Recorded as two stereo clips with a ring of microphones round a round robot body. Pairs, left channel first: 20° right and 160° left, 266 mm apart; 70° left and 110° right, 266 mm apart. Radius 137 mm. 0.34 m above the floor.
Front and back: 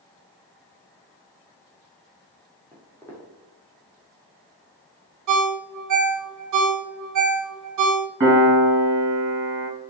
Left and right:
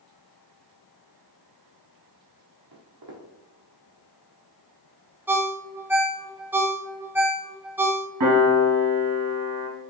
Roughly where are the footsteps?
Right.